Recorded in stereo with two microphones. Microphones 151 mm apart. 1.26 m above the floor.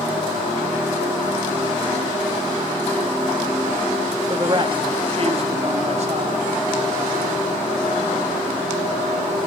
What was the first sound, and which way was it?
A man speaking, 30° right (ahead or behind).